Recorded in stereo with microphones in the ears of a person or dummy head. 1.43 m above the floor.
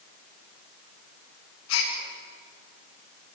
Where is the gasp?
85° left, 8.5 m.